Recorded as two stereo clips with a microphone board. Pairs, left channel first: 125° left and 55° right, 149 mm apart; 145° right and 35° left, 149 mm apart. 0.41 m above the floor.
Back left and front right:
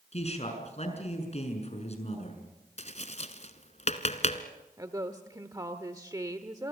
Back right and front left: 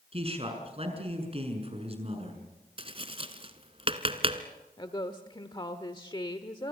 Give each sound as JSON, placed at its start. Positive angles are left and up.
{"t": 0.1, "sound": "a man speaking", "azimuth_deg": 80, "distance_m": 6.0}
{"t": 2.8, "sound": "tapping", "azimuth_deg": 85, "distance_m": 1.4}
{"t": 4.8, "sound": "a woman speaking", "azimuth_deg": -110, "distance_m": 1.2}